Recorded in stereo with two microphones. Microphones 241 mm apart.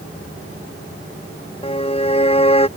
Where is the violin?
25° left (ahead or behind).